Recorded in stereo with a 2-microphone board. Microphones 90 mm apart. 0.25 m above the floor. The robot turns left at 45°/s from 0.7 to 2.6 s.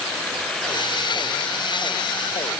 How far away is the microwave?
I don't hear a microwave.